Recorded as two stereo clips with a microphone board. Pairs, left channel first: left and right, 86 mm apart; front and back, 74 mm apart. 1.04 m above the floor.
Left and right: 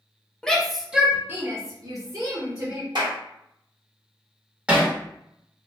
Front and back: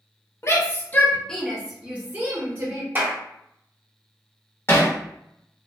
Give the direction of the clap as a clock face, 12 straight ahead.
4 o'clock.